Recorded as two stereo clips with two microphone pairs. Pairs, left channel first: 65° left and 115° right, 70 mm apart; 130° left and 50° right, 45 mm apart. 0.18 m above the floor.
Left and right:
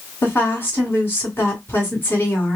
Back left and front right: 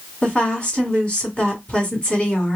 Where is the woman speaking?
100° left, 1.8 m.